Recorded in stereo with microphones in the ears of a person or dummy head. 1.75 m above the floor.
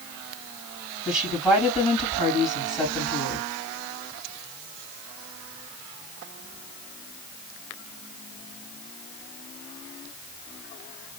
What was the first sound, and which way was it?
A woman speaking, centre (ahead or behind).